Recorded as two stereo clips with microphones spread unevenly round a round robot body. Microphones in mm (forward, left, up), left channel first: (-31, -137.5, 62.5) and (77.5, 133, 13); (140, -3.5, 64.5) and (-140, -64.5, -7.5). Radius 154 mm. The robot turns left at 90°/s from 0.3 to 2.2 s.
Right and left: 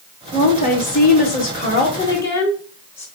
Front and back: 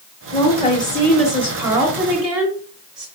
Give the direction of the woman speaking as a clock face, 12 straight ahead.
1 o'clock.